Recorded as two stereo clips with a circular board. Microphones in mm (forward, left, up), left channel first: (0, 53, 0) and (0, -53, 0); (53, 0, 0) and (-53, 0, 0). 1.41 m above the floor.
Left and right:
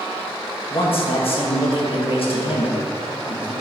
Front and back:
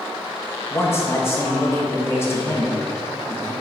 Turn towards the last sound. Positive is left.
turn(degrees=65)